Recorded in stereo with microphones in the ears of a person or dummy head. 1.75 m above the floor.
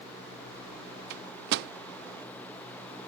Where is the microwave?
60° right (ahead or behind).